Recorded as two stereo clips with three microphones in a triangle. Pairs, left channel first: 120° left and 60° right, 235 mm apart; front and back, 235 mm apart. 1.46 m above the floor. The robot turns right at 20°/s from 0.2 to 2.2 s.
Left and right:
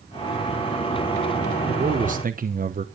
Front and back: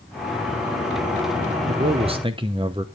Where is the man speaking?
120° right, 0.9 m; by 2.9 s 110° right, 0.9 m.